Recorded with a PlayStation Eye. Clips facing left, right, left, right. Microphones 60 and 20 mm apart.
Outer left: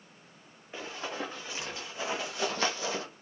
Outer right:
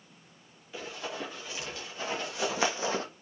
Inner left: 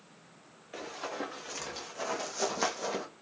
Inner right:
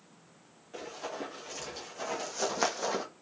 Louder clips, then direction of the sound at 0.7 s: Outer left 1 dB, inner left 1 dB; 35° left (ahead or behind).